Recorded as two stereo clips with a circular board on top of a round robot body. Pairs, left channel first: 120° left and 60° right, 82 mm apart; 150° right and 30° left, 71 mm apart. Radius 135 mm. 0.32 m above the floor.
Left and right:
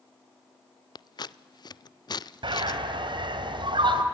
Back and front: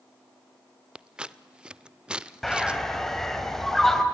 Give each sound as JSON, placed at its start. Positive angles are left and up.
{"t": 0.9, "sound": "scissors", "azimuth_deg": 105, "distance_m": 0.6}
{"t": 2.4, "sound": "a bird", "azimuth_deg": -65, "distance_m": 2.0}